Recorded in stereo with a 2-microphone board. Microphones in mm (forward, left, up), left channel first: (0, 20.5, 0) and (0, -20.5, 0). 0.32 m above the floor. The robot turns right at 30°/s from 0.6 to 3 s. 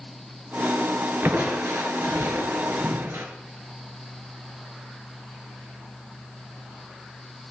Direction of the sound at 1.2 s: 130° right.